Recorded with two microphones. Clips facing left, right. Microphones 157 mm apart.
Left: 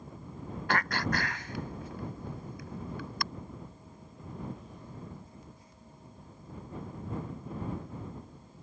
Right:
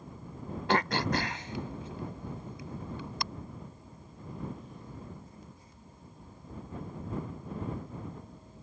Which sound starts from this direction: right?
Throat clearing, at 0.7 s.